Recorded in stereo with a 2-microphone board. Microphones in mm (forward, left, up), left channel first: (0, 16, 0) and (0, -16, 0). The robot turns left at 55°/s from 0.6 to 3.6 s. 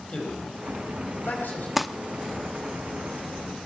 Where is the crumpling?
5° right (ahead or behind), 0.8 m; by 1.9 s centre (ahead or behind), 0.8 m.